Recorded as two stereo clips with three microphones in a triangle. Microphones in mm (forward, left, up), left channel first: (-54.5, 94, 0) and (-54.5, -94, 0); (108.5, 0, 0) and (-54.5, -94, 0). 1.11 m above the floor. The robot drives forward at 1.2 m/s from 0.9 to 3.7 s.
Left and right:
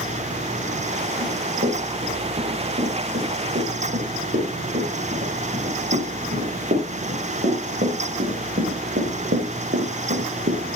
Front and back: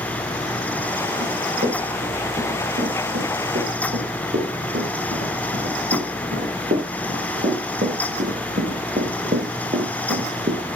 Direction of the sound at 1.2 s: 115° right.